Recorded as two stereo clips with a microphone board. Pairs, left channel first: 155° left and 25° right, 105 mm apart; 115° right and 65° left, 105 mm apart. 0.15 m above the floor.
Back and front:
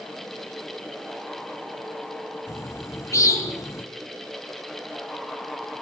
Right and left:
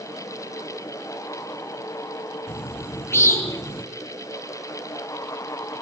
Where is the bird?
160° right, 2 m.